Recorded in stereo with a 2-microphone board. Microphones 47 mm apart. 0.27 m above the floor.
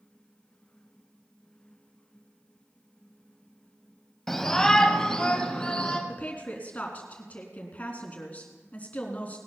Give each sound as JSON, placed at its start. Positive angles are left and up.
{"t": 4.3, "sound": "a shout", "side_deg": 5, "distance_m": 1.2}
{"t": 6.1, "sound": "a woman speaking", "side_deg": 30, "distance_m": 3.0}